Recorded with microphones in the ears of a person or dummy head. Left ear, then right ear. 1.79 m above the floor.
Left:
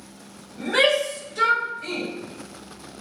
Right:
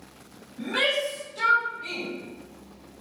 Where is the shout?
50° left (ahead or behind), 2 m; by 2.1 s 35° left (ahead or behind), 3 m.